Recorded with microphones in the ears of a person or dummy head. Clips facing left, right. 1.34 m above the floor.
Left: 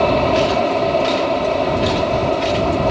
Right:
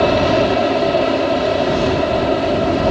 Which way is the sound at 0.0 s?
15° right (ahead or behind).